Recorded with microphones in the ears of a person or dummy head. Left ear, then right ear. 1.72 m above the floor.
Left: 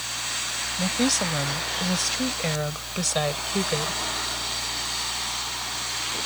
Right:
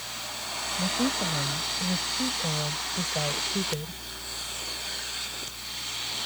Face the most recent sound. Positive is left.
turn(degrees=65)  # may be behind; listen again after turning